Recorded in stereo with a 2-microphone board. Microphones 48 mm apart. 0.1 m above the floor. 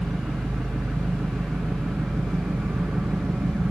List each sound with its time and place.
0.0 s an engine running: 40° right (ahead or behind), 2 m